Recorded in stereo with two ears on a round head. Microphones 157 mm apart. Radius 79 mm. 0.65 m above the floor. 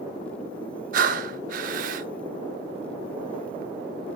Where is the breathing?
50° right (ahead or behind), 0.9 m.